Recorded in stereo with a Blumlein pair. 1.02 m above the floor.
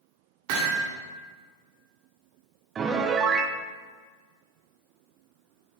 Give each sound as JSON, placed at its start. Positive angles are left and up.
{"t": 0.5, "sound": "hammering", "azimuth_deg": -45, "distance_m": 1.6}
{"t": 2.8, "sound": "a piano", "azimuth_deg": -25, "distance_m": 0.5}